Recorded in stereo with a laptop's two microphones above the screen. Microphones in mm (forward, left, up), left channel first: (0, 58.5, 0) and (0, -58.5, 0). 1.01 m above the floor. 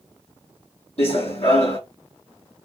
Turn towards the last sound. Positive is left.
turn(degrees=55)  # may be behind; listen again after turning